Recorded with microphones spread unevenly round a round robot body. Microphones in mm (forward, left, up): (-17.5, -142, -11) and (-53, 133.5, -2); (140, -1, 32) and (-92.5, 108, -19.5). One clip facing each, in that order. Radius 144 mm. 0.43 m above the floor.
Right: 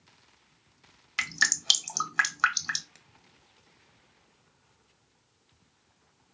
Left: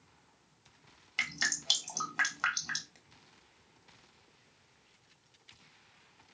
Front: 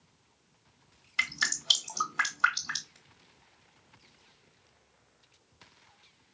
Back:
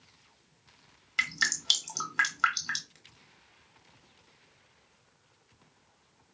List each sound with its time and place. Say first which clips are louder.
1.2 s dripping: right 2 dB, back 1 dB; 140° right, 1.3 m